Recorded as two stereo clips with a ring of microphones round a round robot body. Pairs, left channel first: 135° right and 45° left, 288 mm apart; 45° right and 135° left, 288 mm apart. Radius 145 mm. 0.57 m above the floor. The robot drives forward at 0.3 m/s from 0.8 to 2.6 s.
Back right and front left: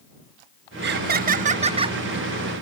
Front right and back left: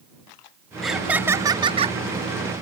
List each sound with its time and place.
0.8 s laughter: 45° left; by 2.0 s 100° left